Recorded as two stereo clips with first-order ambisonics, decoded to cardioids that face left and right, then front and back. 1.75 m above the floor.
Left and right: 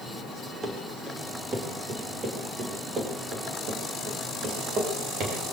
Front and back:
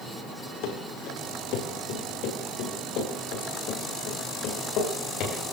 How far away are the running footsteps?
About 7.5 m.